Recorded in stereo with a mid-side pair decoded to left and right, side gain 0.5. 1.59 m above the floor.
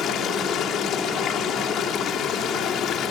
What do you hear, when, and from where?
0.0 s running water: 65° left